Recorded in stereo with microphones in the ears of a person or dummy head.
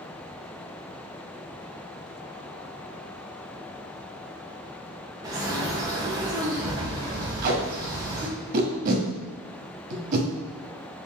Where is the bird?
20° right (ahead or behind), 0.6 m.